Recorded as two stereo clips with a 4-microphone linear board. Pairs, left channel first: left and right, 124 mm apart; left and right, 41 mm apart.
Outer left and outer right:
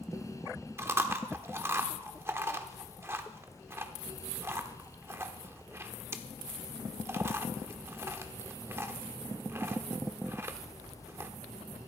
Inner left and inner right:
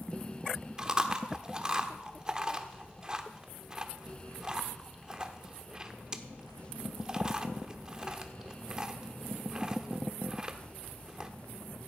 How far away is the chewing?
About 1.0 m.